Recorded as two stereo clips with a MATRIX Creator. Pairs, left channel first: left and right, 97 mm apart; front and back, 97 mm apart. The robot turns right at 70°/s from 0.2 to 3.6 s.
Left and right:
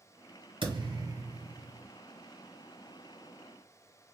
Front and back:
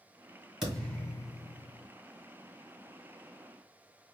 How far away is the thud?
About 2 m.